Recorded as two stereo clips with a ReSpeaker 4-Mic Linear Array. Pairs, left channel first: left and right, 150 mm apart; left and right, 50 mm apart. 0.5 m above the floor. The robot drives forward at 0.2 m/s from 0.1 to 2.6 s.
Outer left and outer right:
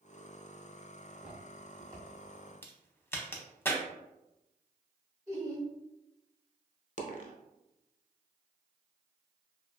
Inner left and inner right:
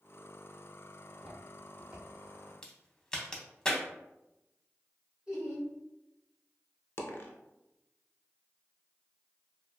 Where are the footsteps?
5° right (ahead or behind), 1.3 m; by 2.5 s 30° right (ahead or behind), 1.2 m.